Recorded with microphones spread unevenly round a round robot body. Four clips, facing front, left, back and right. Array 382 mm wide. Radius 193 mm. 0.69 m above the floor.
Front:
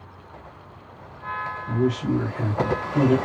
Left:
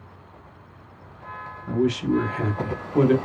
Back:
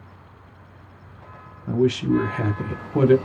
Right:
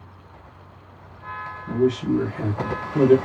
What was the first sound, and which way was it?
A man speaking, 145° left.